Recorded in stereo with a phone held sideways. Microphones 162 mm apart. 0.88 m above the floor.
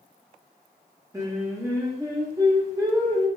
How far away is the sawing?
No sawing in this recording.